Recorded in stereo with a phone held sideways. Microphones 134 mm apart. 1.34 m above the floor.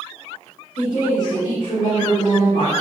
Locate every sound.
0.8 s a woman speaking: 80° left, 2.0 m